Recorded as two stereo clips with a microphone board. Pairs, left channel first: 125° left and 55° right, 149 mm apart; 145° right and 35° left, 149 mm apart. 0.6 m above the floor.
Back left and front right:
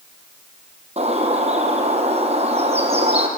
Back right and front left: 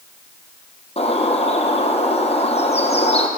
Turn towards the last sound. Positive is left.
turn(degrees=-100)